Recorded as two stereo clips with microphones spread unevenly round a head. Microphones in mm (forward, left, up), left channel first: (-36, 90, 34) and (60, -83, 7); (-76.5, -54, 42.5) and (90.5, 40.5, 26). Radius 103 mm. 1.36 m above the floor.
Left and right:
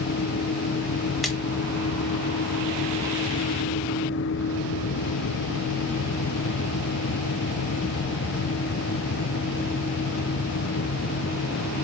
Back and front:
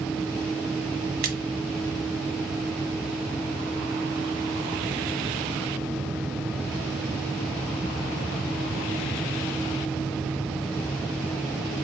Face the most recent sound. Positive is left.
turn(degrees=40)